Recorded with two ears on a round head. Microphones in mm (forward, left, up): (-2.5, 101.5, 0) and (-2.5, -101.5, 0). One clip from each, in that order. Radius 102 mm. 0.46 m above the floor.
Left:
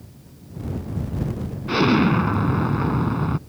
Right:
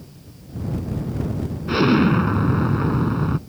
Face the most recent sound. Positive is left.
turn(degrees=10)  # may be behind; listen again after turning